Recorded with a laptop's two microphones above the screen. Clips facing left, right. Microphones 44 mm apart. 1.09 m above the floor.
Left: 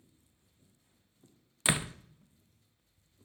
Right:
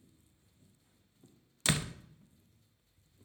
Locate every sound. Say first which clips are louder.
1.6 s a door slam: left 2 dB; 20° left (ahead or behind), 0.5 m